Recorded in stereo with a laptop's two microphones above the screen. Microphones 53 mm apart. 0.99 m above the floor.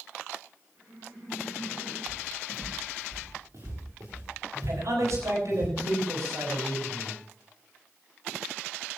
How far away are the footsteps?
About 6.5 m.